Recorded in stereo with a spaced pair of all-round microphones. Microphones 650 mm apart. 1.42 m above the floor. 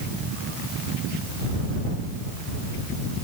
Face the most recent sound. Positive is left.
No sound to turn to.